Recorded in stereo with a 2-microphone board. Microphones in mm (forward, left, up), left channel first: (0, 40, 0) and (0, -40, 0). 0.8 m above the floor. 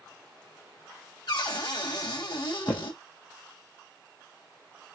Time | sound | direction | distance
1.3 | a cupboard door | 60° left (ahead or behind) | 1.7 m
2.7 | footsteps | 25° left (ahead or behind) | 1.1 m